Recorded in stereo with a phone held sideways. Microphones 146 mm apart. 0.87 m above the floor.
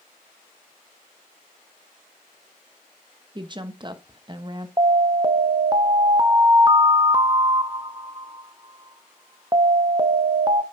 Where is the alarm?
30° right (ahead or behind), 0.6 m.